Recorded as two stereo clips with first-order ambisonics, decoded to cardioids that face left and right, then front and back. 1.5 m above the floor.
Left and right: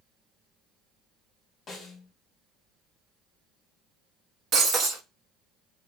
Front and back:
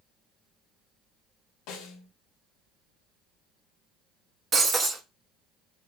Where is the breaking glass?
130° right, 1.0 m.